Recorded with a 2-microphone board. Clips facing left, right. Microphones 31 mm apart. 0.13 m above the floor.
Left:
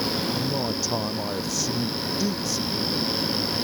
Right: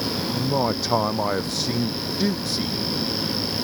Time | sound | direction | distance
0.3 | a man speaking | 45° right (ahead or behind) | ?